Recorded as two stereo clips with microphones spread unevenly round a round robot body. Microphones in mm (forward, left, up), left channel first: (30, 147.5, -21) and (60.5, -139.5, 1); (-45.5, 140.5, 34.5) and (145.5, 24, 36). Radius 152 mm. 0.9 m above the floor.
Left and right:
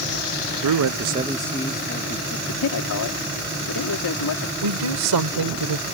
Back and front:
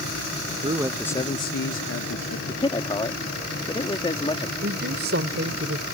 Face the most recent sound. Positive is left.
turn(degrees=-85)